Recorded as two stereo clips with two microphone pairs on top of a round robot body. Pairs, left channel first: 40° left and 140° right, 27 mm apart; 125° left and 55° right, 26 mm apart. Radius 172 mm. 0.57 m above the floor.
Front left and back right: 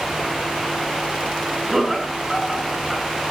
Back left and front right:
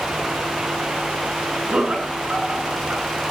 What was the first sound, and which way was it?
Laughter, 65° right.